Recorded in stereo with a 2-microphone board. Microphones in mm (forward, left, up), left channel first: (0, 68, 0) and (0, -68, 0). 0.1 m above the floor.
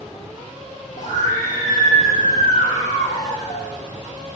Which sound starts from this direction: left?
A scream, at 1.0 s.